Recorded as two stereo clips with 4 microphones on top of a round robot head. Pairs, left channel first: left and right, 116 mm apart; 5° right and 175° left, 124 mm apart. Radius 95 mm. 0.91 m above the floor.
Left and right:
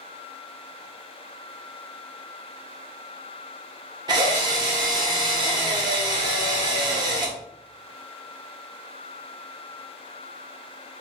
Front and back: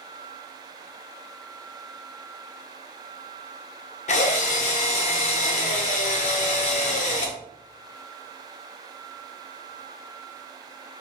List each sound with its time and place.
4.1 s a drill: 35° right, 0.6 m